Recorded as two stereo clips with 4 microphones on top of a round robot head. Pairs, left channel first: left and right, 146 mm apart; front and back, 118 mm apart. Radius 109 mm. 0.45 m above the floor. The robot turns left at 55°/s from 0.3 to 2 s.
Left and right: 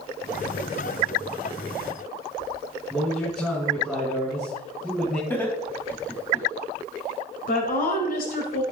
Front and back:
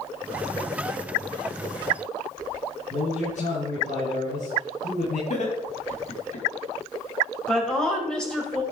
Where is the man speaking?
5° left, 6 m.